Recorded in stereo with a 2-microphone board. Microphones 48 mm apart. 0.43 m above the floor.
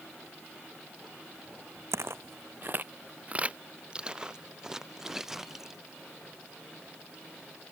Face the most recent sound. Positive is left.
turn(degrees=-5)  # may be behind; listen again after turning